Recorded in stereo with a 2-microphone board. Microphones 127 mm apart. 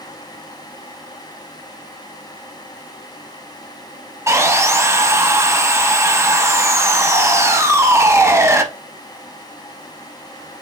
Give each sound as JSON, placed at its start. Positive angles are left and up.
{"t": 4.3, "sound": "sawing", "side_deg": -20, "distance_m": 0.6}